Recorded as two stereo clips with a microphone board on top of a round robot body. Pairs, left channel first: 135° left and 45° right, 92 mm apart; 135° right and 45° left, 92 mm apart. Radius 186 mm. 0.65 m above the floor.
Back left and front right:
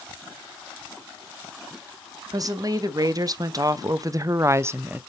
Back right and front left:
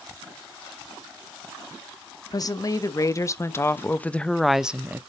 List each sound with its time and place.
2.3 s a woman speaking: 90° right, 1.7 m; by 5.0 s 5° left, 0.8 m